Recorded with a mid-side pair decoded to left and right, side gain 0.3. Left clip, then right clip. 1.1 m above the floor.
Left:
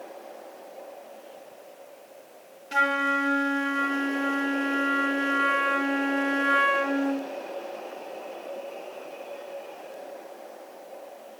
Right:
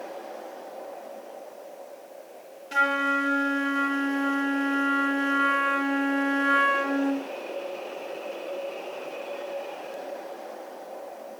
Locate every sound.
2.7 s a flute: 15° left, 0.6 m